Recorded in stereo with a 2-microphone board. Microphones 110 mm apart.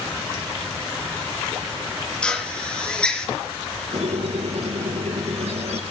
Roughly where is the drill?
Centre.